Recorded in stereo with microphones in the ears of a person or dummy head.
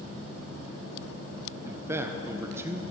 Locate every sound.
1.6 s a man speaking: 15° right (ahead or behind), 0.9 m